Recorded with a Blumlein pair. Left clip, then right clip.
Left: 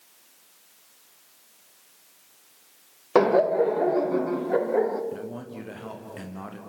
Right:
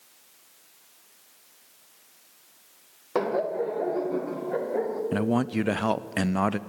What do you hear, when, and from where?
3.1 s laughter: 25° left, 0.7 m; by 5.0 s 15° left, 1.8 m
5.1 s a man speaking: 35° right, 0.6 m